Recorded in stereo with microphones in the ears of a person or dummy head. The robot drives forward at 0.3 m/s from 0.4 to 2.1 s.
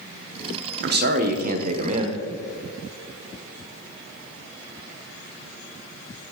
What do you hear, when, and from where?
0.8 s a man speaking: 55° right (ahead or behind), 0.7 m; by 2.2 s 35° right (ahead or behind), 1.0 m